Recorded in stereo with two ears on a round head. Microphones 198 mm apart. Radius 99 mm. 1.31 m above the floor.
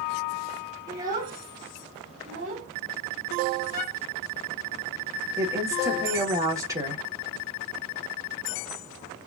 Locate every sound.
0.9 s a child speaking: 15° right (ahead or behind), 2.0 m; by 2.7 s 35° right (ahead or behind), 3 m
3.7 s a violin: 35° right (ahead or behind), 4 m
5.4 s a woman speaking: 15° right (ahead or behind), 1.9 m